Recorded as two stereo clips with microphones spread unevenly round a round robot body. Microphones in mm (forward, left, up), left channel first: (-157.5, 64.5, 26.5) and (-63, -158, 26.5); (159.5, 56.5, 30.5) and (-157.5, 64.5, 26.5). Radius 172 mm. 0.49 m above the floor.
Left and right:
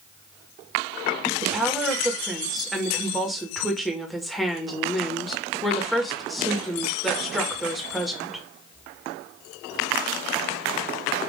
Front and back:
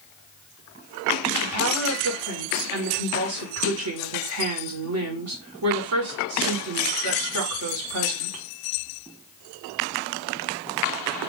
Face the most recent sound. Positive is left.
turn(degrees=-155)